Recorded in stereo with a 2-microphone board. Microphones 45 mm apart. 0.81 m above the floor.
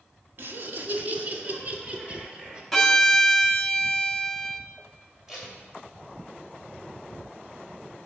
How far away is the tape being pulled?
About 2.5 m.